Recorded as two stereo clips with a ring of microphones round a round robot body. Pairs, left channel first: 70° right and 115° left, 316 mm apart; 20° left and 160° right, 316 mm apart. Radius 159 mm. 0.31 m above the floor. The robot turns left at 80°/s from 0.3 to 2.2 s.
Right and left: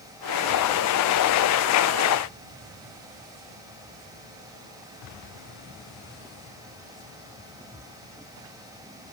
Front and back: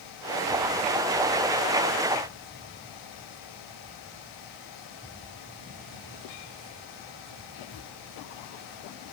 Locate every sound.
Only background noise.